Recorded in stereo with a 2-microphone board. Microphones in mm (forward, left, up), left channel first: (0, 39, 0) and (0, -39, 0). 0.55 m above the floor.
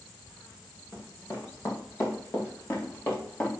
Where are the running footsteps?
40° left (ahead or behind), 3.5 m; by 3.5 s 30° left (ahead or behind), 5.5 m.